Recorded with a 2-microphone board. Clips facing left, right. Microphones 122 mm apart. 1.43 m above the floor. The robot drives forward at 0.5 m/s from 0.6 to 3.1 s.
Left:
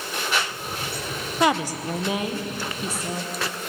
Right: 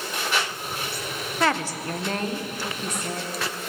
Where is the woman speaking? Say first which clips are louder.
Left 3 dB; 15° left (ahead or behind), 0.6 m; by 3.3 s 5° left (ahead or behind), 1.4 m.